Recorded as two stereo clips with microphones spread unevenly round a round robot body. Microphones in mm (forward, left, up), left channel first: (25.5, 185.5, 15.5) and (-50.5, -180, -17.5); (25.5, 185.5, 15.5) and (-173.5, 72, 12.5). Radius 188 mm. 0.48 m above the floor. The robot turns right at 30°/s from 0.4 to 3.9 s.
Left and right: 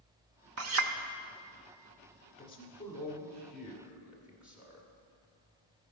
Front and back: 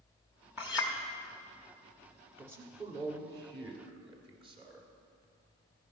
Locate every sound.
0.6 s a clink: 70° right, 0.5 m; by 0.9 s 60° right, 0.5 m
2.4 s a man speaking: 140° left, 1.3 m; by 4.9 s 170° right, 1.3 m